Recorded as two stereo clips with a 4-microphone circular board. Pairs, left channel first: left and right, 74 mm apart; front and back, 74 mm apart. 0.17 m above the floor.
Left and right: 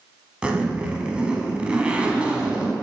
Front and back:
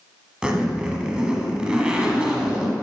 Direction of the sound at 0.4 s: 125° right.